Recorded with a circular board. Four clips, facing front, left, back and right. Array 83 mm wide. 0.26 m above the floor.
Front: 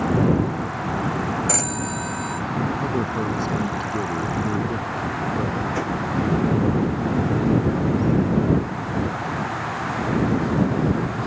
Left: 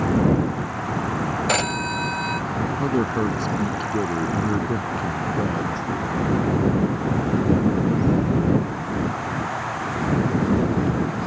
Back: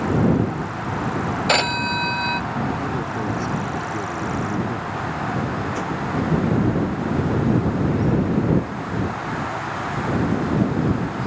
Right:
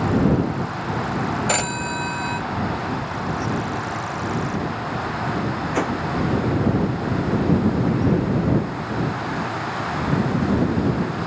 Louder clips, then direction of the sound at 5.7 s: Right 4 dB, front 1 dB; 85° right.